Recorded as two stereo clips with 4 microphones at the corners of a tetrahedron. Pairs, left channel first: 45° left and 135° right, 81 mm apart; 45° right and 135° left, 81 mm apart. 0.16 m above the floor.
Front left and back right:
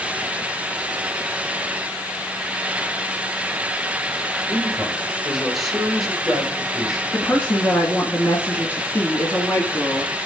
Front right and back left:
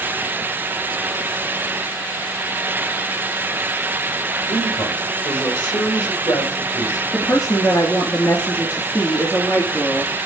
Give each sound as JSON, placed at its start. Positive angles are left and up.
{"t": 4.5, "sound": "a man speaking", "azimuth_deg": -50, "distance_m": 4.0}
{"t": 7.1, "sound": "a woman speaking", "azimuth_deg": -10, "distance_m": 1.5}